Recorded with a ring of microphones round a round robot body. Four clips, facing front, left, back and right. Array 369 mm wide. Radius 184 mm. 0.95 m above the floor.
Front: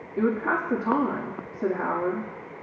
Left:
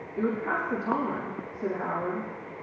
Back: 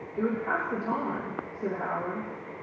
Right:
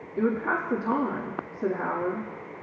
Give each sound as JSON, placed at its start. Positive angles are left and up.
{"t": 0.2, "sound": "a woman speaking", "azimuth_deg": -20, "distance_m": 1.9}